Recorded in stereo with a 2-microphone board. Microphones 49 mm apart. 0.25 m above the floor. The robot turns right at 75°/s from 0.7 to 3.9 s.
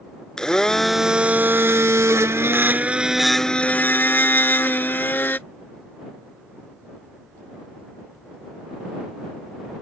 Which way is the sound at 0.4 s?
165° left.